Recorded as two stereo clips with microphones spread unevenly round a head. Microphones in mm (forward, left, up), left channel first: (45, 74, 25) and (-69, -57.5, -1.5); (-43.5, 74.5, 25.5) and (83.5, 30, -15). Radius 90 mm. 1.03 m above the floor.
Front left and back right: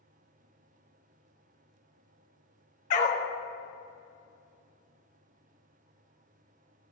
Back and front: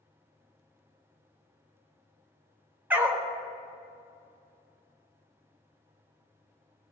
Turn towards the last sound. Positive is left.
turn(degrees=70)